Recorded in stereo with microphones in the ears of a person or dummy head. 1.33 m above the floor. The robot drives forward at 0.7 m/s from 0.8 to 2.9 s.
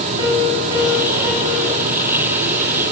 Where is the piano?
15° right (ahead or behind), 5.5 m.